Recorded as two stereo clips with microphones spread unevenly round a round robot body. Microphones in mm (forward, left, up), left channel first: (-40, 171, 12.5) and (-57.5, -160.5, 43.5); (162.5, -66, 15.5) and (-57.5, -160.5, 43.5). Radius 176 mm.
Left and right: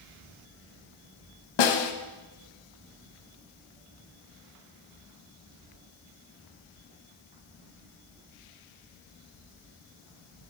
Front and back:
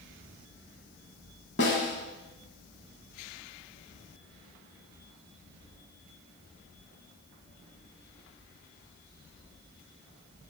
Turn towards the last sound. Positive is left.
turn(degrees=80)